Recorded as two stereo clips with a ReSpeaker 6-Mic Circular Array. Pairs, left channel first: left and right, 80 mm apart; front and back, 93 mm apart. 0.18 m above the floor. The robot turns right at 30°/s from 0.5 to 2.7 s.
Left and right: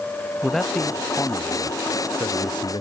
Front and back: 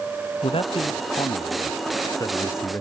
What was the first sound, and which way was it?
A man speaking, straight ahead.